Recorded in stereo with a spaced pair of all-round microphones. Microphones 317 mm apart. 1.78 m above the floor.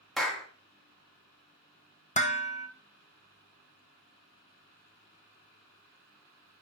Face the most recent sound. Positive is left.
turn(degrees=20)  # may be behind; listen again after turning